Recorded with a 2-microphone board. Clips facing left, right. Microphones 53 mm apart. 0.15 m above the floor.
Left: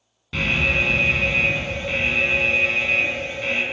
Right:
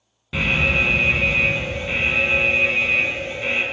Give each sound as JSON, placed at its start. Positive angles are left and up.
{"t": 0.3, "sound": "an alarm", "side_deg": -10, "distance_m": 0.8}